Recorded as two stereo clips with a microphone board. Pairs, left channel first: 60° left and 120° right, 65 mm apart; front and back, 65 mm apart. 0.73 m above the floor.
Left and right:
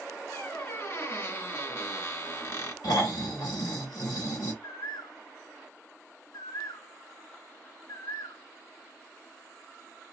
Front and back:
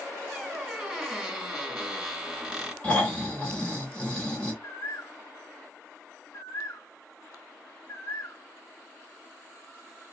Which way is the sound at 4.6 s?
40° left.